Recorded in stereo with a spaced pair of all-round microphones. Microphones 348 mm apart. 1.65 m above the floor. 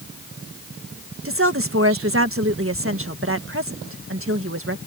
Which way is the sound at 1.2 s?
40° right (ahead or behind).